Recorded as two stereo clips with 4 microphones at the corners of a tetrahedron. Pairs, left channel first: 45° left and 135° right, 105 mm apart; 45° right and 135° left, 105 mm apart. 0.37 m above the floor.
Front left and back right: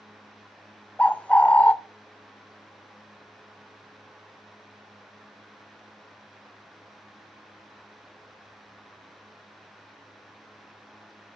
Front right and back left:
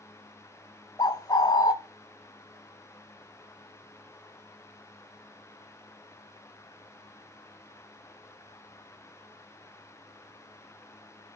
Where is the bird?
25° right, 0.6 m.